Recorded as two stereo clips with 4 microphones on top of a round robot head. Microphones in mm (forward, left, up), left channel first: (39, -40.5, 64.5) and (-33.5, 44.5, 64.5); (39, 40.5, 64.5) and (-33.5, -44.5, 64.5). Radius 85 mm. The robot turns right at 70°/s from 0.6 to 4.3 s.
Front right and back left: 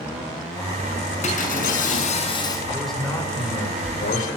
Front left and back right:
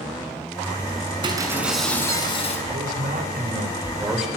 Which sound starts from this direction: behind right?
A man speaking, at 2.7 s.